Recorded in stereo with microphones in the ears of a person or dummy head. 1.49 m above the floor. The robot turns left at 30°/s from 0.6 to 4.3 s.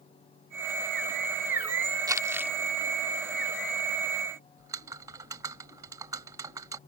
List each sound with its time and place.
2.1 s crumpling: 25° right (ahead or behind); by 2.5 s 10° right (ahead or behind)
4.6 s typing on a keyboard: 25° right (ahead or behind)